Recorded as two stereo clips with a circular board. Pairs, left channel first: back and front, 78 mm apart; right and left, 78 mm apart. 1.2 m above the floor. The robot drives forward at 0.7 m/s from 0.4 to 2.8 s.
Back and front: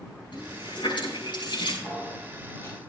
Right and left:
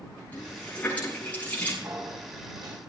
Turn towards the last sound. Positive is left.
turn(degrees=125)